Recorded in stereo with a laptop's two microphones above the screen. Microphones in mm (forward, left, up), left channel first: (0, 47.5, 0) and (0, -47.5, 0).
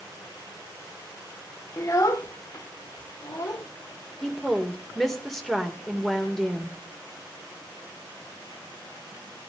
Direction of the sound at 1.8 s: 35° left (ahead or behind).